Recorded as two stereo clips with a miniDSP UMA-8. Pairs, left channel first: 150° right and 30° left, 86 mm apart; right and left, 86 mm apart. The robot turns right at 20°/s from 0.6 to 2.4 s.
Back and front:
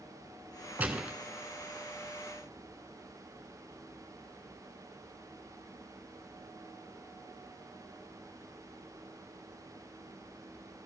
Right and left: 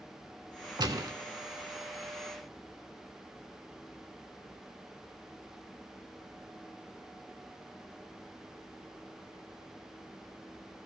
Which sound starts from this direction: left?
A gunshot, at 0.8 s.